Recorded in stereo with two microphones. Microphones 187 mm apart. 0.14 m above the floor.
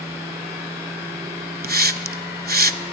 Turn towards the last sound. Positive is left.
turn(degrees=-55)  # may be behind; listen again after turning